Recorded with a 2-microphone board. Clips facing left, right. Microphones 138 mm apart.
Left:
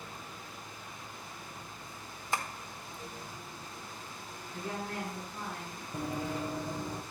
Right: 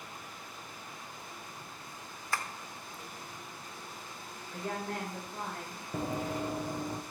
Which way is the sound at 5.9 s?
30° right (ahead or behind).